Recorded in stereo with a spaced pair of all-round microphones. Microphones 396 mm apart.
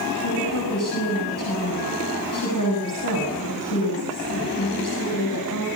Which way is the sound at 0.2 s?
50° left (ahead or behind).